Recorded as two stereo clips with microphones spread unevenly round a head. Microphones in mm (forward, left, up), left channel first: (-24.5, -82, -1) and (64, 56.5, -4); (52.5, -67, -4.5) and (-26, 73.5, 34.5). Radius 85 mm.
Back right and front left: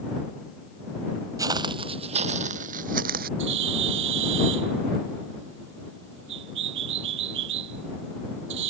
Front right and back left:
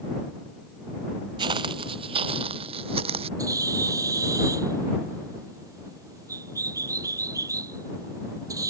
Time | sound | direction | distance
1.4 | footsteps | 120° left | ?
3.4 | a bird | 50° left | ?